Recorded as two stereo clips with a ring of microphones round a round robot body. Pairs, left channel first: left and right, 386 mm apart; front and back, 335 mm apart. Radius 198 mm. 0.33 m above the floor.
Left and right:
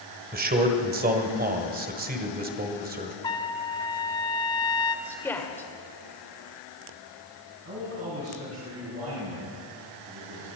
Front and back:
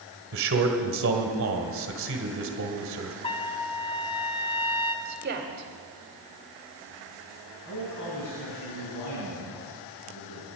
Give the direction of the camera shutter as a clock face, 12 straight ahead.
No camera shutter in this recording.